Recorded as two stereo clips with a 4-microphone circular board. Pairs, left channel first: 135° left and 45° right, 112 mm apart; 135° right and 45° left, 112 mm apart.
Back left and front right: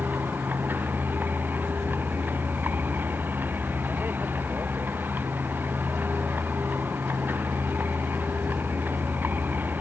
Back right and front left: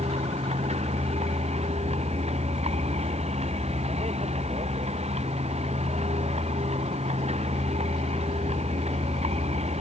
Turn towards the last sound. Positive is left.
turn(degrees=25)